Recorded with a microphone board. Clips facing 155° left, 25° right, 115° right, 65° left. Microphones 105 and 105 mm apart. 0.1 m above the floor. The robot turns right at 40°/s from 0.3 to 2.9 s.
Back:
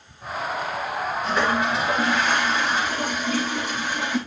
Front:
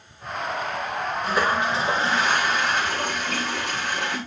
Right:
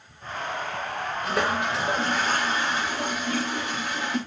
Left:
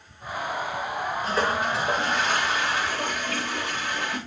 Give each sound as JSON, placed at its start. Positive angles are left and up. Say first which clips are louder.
{"t": 1.2, "sound": "a toilet flushing", "louder": "even, even", "azimuth_deg": -110, "distance_m": 9.5}